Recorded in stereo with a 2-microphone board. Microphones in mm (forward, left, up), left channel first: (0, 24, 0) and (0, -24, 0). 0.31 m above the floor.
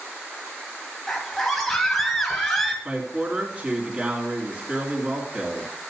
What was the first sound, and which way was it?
A scream, 5° left (ahead or behind).